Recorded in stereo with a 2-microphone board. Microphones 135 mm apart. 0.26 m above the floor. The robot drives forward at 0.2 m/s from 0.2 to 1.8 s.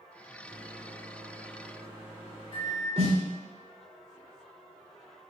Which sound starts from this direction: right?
A snare drum, at 3.0 s.